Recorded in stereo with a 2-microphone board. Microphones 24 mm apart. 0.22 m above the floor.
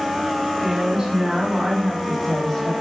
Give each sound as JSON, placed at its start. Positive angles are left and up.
{"t": 0.6, "sound": "a woman speaking", "side_deg": -25, "distance_m": 2.5}